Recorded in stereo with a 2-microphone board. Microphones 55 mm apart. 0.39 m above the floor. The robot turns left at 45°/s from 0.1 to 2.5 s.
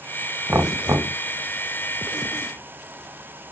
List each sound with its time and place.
0.5 s knocking: 45° right (ahead or behind), 1.7 m; by 1.2 s 70° right (ahead or behind), 1.7 m